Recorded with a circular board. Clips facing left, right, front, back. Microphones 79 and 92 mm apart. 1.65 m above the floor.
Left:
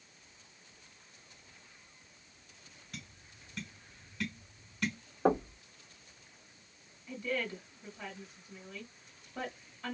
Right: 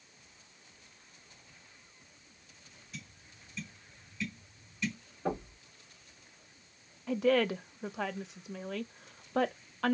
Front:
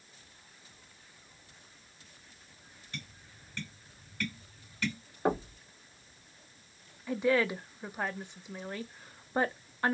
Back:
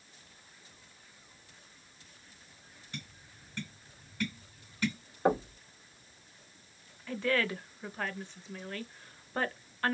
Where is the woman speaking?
75° right, 0.7 m.